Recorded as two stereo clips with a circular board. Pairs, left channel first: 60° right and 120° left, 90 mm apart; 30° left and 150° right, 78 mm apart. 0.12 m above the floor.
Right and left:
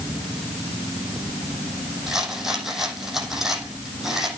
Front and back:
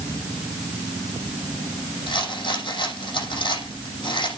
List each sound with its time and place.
2.1 s a rattle: 35° left, 6.5 m